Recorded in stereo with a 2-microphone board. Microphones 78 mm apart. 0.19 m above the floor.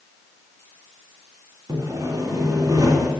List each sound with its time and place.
1.7 s sawing: 40° right (ahead or behind), 1.8 m